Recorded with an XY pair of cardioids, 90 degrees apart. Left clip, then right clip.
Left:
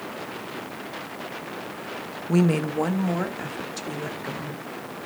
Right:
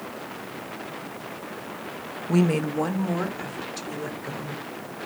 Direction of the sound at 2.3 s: 5° left.